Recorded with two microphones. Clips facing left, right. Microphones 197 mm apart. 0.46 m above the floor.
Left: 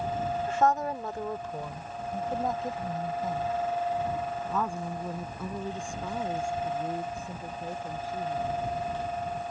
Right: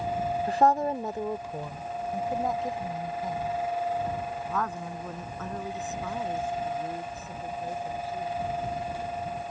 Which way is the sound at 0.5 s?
35° right (ahead or behind).